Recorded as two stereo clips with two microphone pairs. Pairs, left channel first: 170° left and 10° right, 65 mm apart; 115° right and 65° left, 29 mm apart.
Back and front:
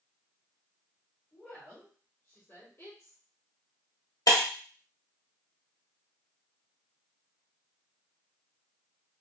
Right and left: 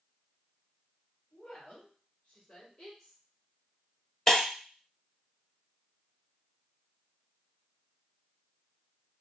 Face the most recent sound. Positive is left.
turn(degrees=175)